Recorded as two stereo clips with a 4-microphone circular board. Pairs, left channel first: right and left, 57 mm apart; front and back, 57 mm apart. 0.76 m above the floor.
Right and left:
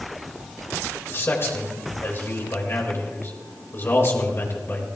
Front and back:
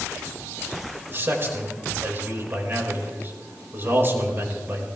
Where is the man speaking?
135° right, 4 m.